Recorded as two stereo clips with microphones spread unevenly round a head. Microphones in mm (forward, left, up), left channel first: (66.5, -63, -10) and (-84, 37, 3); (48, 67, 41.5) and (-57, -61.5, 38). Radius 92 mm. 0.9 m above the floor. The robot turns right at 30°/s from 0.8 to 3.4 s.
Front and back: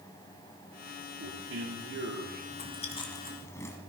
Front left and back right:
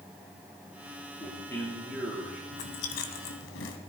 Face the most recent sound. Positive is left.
turn(degrees=45)